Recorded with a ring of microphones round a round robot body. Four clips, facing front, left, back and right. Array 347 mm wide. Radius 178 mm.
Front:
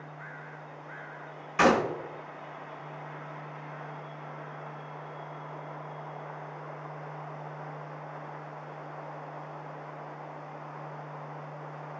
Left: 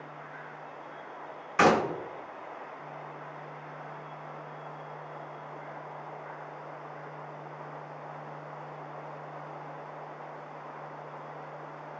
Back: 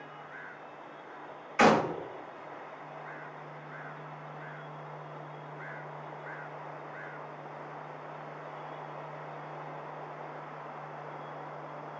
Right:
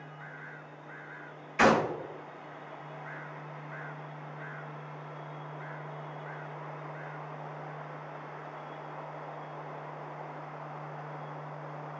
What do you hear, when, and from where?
1.6 s a gunshot: 65° left, 2.0 m